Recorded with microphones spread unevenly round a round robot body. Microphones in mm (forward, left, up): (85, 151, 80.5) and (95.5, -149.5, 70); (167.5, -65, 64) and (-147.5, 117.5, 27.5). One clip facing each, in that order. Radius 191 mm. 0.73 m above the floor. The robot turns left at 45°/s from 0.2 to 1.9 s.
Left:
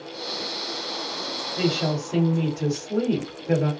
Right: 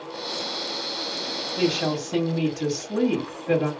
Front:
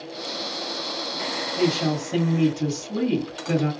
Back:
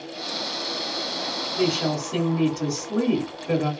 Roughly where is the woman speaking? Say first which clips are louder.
Right 1 dB, front 1 dB; right.